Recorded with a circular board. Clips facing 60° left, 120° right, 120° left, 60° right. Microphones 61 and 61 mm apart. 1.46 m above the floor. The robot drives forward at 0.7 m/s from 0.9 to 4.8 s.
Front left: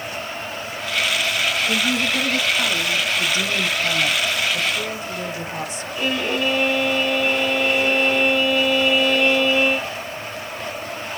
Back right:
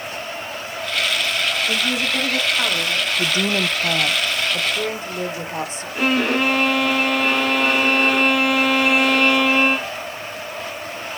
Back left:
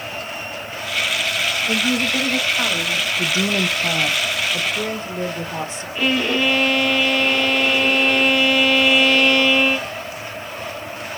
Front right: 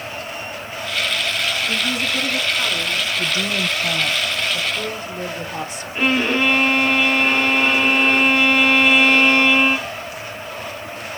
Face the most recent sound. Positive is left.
turn(degrees=-115)